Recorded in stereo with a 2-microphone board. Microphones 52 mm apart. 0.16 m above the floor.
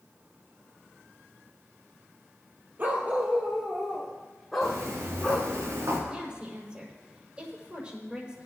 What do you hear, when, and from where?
2.8 s a dog barking: 35° right (ahead or behind), 1.8 m; by 5.5 s 5° left (ahead or behind), 4.5 m
4.6 s footsteps: 85° right, 5.5 m; by 6.0 s 65° right (ahead or behind), 5 m
6.1 s a woman speaking: 25° right (ahead or behind), 6.5 m